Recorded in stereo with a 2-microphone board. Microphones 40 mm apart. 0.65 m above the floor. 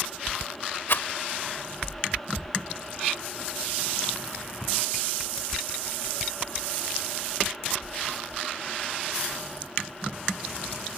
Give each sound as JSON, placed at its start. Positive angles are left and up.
{"t": 0.9, "sound": "a rattle", "side_deg": 65}